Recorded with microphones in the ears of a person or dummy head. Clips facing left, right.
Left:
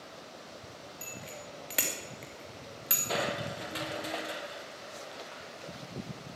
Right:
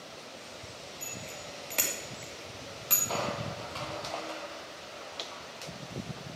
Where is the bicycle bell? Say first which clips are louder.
Even; 10° left (ahead or behind), 2.5 m.